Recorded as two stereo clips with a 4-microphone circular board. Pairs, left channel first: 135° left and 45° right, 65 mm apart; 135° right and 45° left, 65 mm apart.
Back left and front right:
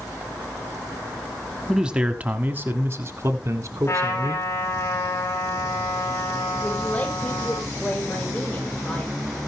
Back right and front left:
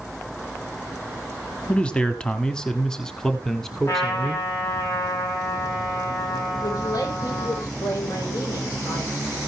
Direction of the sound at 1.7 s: 110° right.